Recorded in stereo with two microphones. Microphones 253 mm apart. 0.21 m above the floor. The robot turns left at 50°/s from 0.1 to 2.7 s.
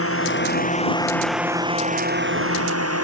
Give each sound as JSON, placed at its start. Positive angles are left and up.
{"t": 0.0, "sound": "a drone", "azimuth_deg": 60}